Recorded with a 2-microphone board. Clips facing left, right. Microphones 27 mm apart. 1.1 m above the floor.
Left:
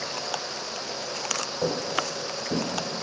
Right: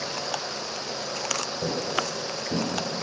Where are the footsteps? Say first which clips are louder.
Left 2 dB; 55° left (ahead or behind), 3 m; by 2.7 s 65° left (ahead or behind), 2.5 m.